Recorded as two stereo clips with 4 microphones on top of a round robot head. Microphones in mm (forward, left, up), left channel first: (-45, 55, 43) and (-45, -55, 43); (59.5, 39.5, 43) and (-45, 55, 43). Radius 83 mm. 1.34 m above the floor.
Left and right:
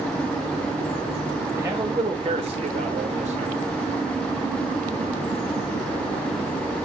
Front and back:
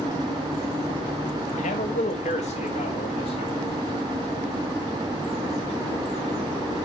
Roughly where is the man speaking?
Ahead.